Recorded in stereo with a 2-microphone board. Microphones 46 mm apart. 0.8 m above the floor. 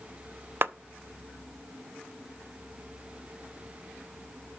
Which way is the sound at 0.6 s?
45° right (ahead or behind).